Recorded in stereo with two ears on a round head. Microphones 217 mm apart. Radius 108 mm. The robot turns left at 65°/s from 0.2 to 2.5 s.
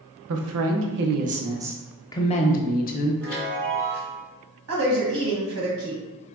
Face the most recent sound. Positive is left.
turn(degrees=-65)  # may be behind; listen again after turning